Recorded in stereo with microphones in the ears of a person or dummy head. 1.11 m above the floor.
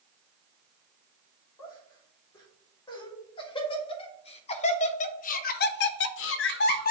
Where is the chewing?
No chewing in this recording.